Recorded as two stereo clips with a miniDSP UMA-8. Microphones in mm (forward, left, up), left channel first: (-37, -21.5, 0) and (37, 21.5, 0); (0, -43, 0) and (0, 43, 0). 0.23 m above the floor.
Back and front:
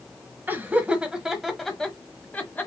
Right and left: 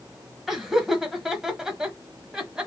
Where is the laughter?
5° left, 1.3 m; by 2.7 s 165° left, 1.4 m.